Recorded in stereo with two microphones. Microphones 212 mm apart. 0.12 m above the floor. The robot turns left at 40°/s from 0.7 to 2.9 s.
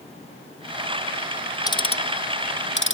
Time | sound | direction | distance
1.7 | ticking | 15° left (ahead or behind) | ?